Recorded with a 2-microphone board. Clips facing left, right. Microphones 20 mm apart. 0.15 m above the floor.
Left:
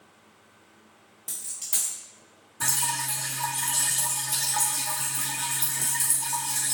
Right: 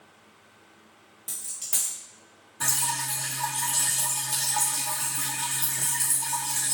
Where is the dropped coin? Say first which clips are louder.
Even; centre (ahead or behind), 1.4 m.